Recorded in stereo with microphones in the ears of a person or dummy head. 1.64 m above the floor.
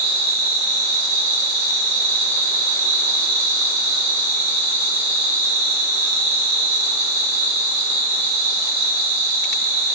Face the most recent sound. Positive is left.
turn(degrees=-45)  # may be behind; listen again after turning